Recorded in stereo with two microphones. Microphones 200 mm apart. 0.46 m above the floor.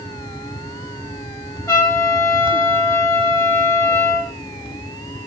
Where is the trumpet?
15° left (ahead or behind), 0.6 m.